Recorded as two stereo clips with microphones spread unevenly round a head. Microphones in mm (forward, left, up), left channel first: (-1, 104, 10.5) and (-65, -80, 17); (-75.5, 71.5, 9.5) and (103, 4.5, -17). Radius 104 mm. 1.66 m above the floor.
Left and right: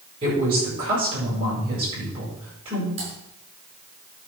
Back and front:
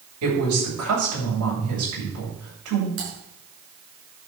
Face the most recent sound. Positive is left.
turn(degrees=-45)